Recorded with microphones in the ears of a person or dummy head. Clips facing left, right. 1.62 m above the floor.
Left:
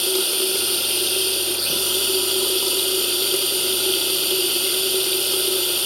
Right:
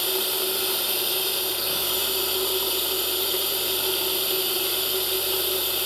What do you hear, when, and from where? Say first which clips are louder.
0.0 s running water: left 5 dB; 50° left (ahead or behind), 1.3 m